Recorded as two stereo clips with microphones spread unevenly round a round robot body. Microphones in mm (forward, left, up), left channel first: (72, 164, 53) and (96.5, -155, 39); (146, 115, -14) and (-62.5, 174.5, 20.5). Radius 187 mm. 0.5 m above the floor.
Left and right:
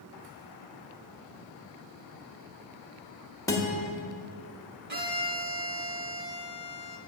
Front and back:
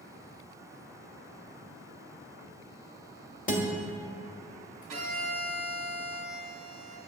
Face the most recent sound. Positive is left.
turn(degrees=-145)